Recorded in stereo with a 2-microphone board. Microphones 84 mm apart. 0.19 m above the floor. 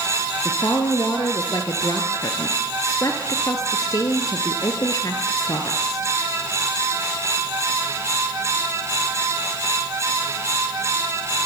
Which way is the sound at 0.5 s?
40° left (ahead or behind).